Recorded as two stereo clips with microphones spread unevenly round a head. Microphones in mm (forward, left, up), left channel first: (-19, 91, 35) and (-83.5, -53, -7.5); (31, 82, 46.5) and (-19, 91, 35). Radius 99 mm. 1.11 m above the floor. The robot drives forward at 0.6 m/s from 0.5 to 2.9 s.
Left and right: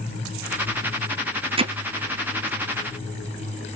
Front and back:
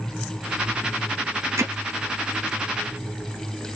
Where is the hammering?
165° right, 0.5 m; by 1.7 s 170° right, 0.6 m.